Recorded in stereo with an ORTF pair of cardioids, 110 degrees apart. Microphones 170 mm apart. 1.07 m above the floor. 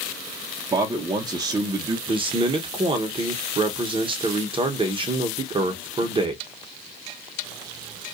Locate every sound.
0.7 s a man speaking: 25° right, 0.6 m
2.1 s a man speaking: 30° right, 0.8 m